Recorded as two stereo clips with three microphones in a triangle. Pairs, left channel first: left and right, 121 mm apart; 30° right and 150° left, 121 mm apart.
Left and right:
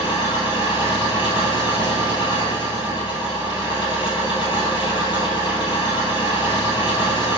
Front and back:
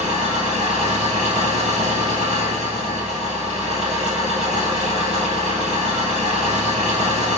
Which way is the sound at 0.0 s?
140° left.